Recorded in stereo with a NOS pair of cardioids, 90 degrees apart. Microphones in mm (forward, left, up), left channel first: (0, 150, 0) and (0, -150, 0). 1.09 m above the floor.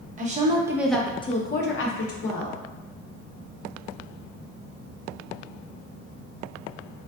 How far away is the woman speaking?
About 0.9 m.